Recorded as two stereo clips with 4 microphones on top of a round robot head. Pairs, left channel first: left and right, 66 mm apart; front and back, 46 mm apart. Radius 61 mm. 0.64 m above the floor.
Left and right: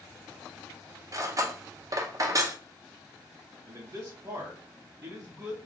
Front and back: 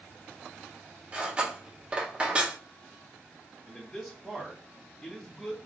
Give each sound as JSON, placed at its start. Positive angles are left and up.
{"t": 1.1, "sound": "cutlery clinking", "azimuth_deg": -115, "distance_m": 0.6}
{"t": 3.7, "sound": "a man speaking", "azimuth_deg": -75, "distance_m": 1.1}